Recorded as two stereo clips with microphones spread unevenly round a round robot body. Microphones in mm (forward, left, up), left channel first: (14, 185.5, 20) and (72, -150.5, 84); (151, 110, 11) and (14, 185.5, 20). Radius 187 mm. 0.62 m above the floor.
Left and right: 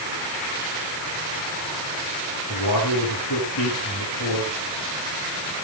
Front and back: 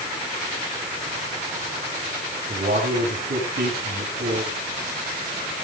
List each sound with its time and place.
2.5 s a man speaking: 150° left, 6.5 m